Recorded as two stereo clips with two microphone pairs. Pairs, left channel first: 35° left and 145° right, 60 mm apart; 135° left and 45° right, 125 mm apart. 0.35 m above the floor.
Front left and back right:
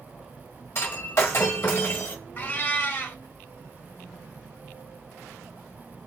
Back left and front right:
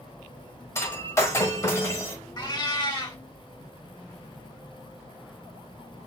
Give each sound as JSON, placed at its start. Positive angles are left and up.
{"t": 0.8, "sound": "breaking glass", "azimuth_deg": 70, "distance_m": 1.2}
{"t": 2.4, "sound": "a cat meowing", "azimuth_deg": 85, "distance_m": 0.7}